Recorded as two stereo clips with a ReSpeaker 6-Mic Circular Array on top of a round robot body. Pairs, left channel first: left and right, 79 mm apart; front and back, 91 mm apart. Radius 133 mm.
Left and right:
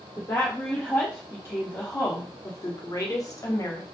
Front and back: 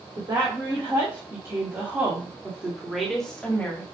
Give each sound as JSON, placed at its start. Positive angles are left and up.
{"t": 0.2, "sound": "a woman speaking", "azimuth_deg": 150, "distance_m": 2.0}